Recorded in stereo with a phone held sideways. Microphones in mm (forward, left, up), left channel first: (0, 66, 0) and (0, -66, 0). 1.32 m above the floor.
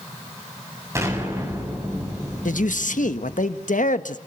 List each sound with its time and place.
0.9 s an explosion: 20° right (ahead or behind), 8 m
2.5 s a man speaking: 75° left (ahead or behind), 1.4 m